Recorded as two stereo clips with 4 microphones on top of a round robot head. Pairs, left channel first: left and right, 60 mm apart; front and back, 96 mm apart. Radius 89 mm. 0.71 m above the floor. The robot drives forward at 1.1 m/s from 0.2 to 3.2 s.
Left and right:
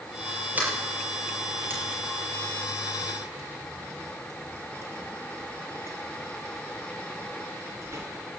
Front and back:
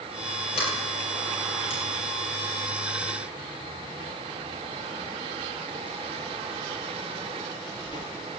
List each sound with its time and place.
0.6 s a sliding door: 25° right, 5.5 m; by 8.0 s 45° right, 3.5 m